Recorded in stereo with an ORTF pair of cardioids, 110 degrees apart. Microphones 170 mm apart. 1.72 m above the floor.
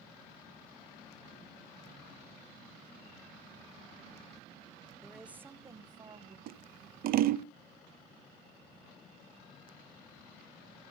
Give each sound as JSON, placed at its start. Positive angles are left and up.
{"t": 5.0, "sound": "a woman speaking", "azimuth_deg": 5, "distance_m": 0.9}
{"t": 6.5, "sound": "scissors", "azimuth_deg": -60, "distance_m": 0.6}